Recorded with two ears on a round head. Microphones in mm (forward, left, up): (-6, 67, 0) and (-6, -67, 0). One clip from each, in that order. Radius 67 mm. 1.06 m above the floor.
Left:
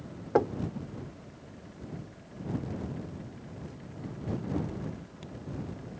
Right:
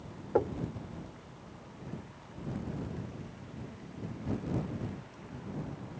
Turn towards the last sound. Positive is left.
turn(degrees=65)  # may be behind; listen again after turning